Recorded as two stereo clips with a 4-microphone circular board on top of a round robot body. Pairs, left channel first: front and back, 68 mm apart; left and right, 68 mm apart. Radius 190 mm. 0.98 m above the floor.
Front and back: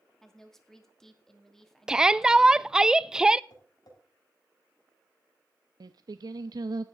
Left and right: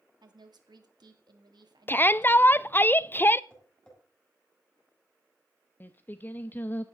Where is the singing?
155° left, 0.7 m.